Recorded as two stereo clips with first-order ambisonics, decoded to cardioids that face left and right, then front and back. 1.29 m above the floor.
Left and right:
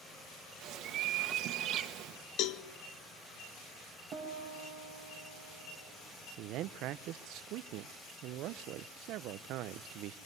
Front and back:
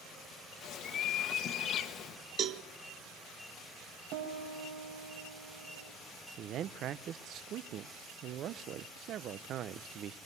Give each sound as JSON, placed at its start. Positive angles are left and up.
{"t": 0.6, "sound": "a bird", "azimuth_deg": -50, "distance_m": 1.3}
{"t": 2.4, "sound": "a cowbell", "azimuth_deg": 125, "distance_m": 0.6}
{"t": 4.1, "sound": "a piano", "azimuth_deg": -160, "distance_m": 4.0}
{"t": 6.4, "sound": "a man speaking", "azimuth_deg": -130, "distance_m": 0.5}